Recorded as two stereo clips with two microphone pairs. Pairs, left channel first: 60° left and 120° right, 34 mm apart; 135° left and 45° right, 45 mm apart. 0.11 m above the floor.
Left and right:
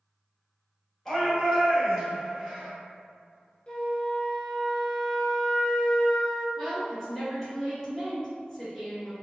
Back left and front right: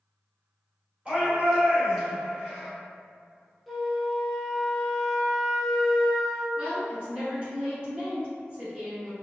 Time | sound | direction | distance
1.1 | a shout | 25° right | 1.8 m
3.7 | a flute | 40° left | 0.5 m
6.6 | a woman speaking | 20° right | 1.6 m